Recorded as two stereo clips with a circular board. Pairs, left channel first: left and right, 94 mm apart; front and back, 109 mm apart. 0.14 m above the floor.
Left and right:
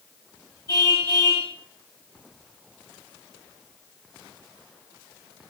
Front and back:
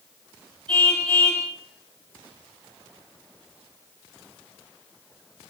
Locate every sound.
0.7 s a car horn: 140° left, 9.5 m